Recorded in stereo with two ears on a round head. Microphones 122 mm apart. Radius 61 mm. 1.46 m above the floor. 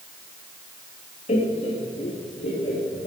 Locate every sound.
1.3 s laughter: 50° left (ahead or behind), 2 m